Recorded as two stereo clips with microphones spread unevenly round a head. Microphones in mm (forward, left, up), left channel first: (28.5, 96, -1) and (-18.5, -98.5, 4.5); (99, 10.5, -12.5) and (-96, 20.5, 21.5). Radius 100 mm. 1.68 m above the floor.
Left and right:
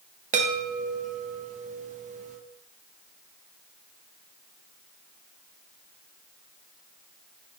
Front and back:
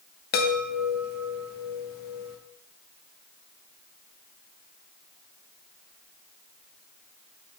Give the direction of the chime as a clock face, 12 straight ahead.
2 o'clock.